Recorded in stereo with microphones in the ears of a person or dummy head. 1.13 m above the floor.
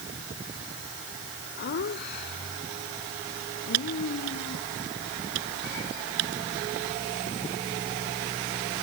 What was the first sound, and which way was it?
Laughter, 50° left (ahead or behind).